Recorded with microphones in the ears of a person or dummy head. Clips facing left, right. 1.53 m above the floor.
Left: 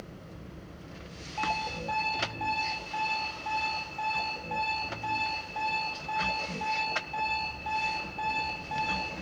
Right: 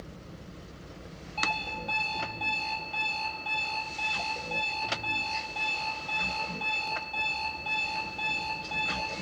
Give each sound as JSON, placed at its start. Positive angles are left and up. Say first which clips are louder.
{"t": 1.4, "sound": "an alarm clock", "louder": "left 3 dB", "side_deg": -15, "distance_m": 3.0}